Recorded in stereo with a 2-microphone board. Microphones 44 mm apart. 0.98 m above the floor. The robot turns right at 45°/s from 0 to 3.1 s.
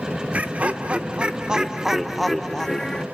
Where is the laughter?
85° right, 0.6 m; by 3.0 s 35° left, 0.6 m.